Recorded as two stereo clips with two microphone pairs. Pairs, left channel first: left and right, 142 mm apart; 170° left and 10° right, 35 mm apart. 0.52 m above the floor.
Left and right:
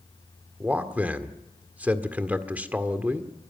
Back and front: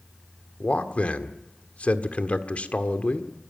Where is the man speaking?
165° right, 1.6 m.